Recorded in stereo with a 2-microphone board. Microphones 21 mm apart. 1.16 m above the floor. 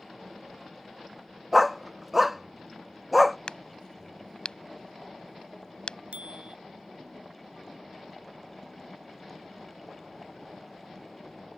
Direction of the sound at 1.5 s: 5° right (ahead or behind).